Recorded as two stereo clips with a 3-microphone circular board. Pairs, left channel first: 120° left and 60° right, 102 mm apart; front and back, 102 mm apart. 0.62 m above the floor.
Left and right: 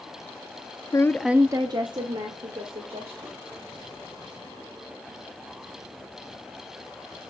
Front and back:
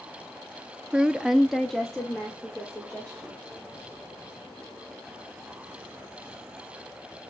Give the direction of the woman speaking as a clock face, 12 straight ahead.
8 o'clock.